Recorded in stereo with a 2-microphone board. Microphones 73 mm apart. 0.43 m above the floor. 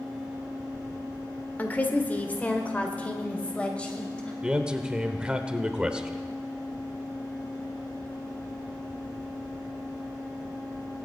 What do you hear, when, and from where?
1.6 s a woman speaking: 25° left (ahead or behind), 1.5 m; by 4.3 s 15° left (ahead or behind), 2.5 m
4.4 s a man speaking: 10° right (ahead or behind), 1.1 m